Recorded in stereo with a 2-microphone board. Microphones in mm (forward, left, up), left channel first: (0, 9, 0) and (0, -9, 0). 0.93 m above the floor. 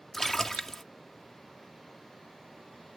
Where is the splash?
15° left (ahead or behind).